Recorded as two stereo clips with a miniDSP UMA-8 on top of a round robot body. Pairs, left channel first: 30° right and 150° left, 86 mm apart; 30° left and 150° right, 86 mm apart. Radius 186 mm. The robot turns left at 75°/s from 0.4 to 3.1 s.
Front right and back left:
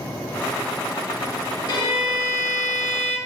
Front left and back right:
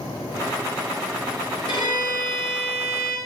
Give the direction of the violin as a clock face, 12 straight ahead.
12 o'clock.